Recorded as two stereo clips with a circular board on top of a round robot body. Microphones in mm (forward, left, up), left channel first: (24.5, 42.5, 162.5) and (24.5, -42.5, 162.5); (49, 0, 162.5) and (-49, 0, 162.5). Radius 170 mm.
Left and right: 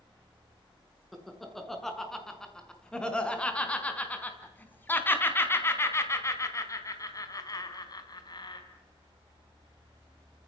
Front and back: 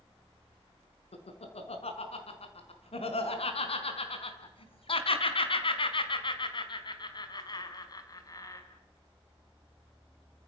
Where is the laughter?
Straight ahead, 6 m; by 8.6 s 55° left, 4 m.